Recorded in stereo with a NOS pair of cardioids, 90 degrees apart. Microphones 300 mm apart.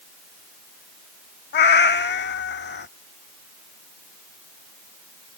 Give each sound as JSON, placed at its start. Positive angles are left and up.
{"t": 1.5, "sound": "a cat meowing", "azimuth_deg": 40}